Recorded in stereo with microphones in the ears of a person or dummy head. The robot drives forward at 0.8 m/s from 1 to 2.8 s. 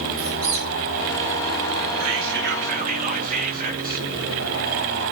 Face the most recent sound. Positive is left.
turn(degrees=-40)  # may be behind; listen again after turning